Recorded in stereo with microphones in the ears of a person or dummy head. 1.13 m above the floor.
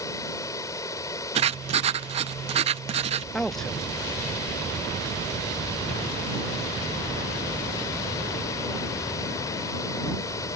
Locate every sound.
0.0 s running water: 20° left (ahead or behind)
1.4 s writing: 30° right (ahead or behind)
3.3 s a man speaking: 5° left (ahead or behind)